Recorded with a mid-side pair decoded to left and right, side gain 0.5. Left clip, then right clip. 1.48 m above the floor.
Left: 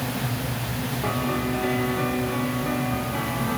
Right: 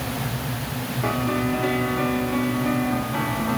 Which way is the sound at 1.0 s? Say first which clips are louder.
Right 3 dB; 30° right.